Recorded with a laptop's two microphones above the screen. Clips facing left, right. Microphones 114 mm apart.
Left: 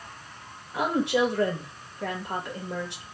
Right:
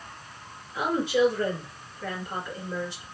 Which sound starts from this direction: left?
A woman speaking, at 0.7 s.